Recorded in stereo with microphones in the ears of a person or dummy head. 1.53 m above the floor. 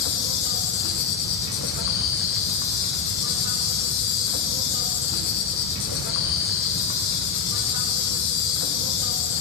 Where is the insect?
55° left (ahead or behind), 0.7 m.